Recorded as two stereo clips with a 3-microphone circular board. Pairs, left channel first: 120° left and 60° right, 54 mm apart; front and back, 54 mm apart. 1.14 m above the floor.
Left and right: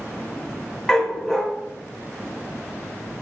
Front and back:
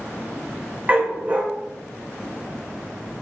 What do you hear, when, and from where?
0.9 s a dog barking: 170° right, 0.6 m